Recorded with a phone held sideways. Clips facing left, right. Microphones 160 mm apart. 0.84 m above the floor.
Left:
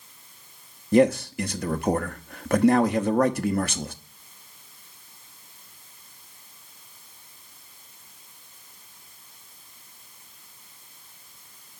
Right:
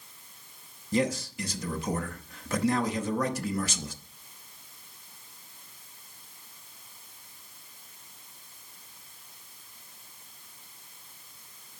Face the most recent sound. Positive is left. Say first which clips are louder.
# left 9 dB
turn(degrees=65)  # may be behind; listen again after turning